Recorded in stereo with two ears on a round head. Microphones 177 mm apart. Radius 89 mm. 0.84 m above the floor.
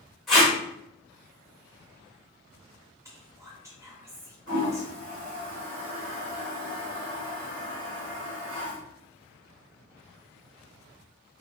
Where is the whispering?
15° right (ahead or behind), 0.9 m.